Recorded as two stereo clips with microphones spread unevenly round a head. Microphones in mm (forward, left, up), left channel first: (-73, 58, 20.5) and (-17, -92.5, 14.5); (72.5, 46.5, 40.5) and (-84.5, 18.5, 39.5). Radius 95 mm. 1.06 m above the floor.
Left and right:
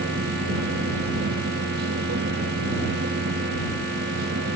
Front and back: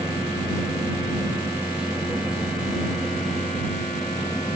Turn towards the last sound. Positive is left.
turn(degrees=-85)